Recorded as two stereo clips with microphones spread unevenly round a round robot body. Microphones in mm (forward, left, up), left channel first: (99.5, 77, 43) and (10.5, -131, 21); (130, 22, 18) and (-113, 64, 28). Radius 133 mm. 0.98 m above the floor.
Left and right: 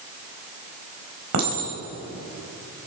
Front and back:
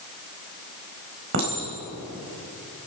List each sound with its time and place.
1.3 s a clink: 145° right, 4 m